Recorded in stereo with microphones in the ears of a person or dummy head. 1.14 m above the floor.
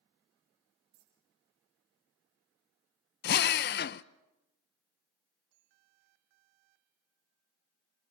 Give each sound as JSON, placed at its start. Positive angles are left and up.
{"t": 0.9, "sound": "a dropped coin", "side_deg": -70, "distance_m": 4.5}
{"t": 3.2, "sound": "a drill", "side_deg": 45, "distance_m": 0.6}